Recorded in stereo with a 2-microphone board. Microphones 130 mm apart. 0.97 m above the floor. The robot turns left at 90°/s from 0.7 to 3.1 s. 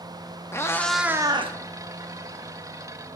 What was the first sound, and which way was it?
A cat meowing, 20° left.